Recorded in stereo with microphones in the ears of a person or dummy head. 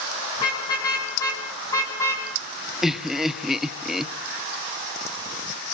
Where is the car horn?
30° left (ahead or behind), 8 m; by 2.3 s 20° left (ahead or behind), 5 m.